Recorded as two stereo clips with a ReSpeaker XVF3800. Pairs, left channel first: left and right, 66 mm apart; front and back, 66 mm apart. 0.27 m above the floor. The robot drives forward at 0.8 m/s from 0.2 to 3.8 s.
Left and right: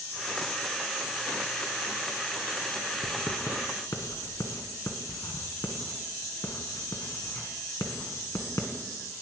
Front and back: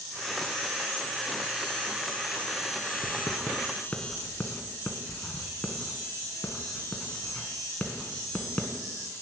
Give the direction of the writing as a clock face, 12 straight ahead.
10 o'clock.